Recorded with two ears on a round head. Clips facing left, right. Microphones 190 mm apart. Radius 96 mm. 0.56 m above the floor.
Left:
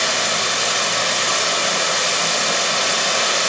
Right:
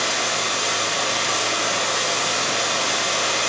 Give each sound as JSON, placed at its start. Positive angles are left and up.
{"t": 0.0, "sound": "running water", "side_deg": 75, "distance_m": 1.3}